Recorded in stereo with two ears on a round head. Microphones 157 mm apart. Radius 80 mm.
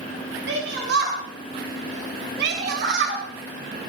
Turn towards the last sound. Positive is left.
turn(degrees=-70)  # may be behind; listen again after turning